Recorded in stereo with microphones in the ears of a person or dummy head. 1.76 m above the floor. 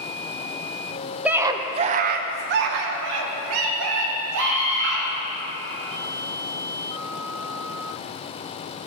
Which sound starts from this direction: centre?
A scream, at 1.2 s.